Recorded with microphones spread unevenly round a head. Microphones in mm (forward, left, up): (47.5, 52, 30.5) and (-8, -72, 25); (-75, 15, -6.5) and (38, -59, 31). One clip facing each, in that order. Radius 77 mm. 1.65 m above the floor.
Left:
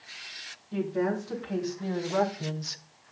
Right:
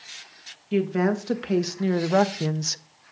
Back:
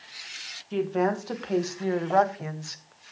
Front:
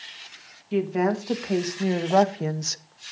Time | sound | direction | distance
0.7 | a woman speaking | 115° right | 2.5 m